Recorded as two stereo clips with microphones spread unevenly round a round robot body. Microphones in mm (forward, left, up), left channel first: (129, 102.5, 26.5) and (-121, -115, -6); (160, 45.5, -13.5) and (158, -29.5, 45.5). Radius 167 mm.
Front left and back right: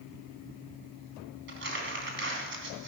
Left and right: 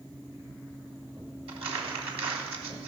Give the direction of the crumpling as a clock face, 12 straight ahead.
3 o'clock.